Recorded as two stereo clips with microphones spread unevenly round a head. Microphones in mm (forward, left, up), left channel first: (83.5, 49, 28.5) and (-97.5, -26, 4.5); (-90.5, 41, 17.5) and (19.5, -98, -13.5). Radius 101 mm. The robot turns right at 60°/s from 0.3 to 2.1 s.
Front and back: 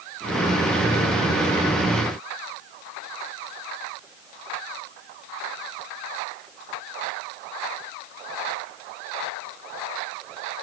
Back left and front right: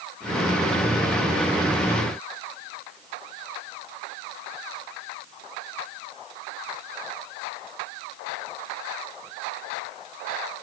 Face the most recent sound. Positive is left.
No sound to turn to.